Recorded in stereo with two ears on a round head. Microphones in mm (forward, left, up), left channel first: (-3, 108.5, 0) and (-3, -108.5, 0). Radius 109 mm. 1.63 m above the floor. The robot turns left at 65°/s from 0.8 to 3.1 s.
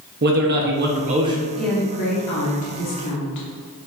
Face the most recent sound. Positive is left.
turn(degrees=80)